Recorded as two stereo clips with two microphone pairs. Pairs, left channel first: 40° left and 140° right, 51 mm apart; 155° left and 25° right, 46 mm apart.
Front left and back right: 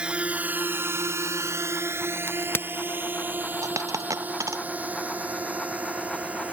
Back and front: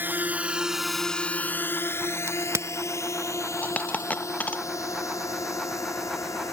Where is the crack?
5° right.